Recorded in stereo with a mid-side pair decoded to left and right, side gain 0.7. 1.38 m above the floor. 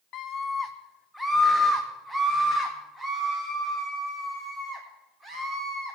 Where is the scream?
50° left, 0.7 m; by 6.0 s 25° right, 4.5 m.